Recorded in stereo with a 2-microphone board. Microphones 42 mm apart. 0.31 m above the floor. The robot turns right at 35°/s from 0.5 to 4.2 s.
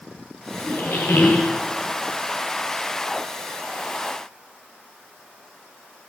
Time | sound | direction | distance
0.6 | a squeak | 60° left | 3 m